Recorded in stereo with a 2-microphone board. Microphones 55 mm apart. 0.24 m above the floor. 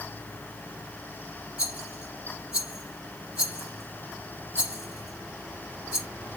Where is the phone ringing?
No phone ringing in this recording.